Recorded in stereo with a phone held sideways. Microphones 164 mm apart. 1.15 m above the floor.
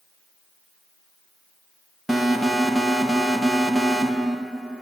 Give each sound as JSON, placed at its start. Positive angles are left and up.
{"t": 2.1, "sound": "an alarm", "side_deg": 0, "distance_m": 2.5}